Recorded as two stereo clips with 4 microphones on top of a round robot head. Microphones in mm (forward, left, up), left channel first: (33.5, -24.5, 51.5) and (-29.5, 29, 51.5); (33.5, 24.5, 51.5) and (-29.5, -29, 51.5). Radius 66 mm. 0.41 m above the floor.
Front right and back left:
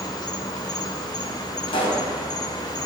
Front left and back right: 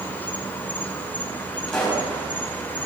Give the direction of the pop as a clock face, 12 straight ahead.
1 o'clock.